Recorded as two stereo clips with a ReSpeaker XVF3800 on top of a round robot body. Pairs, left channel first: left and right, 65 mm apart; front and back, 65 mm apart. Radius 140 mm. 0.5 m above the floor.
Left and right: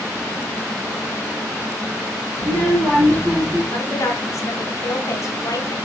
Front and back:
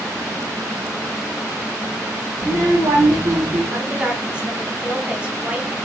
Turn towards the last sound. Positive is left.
turn(degrees=110)